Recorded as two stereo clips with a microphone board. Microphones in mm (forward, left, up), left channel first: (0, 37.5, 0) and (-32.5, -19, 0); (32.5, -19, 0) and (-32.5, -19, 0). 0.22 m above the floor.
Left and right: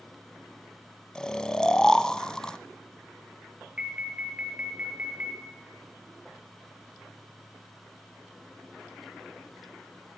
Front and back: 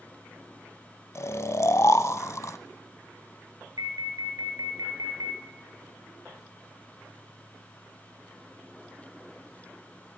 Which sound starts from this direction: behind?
An alarm, at 3.8 s.